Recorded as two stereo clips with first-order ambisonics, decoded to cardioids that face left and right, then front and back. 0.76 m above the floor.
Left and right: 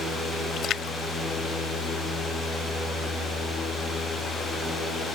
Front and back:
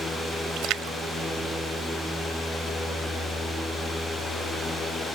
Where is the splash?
140° left.